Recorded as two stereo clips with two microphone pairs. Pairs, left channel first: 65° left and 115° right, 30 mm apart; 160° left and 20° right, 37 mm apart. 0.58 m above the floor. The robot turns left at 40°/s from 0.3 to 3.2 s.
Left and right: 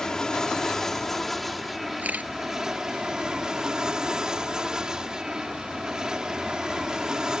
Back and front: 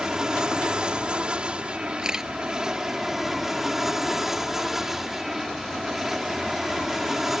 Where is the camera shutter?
85° right; by 2.3 s 100° right.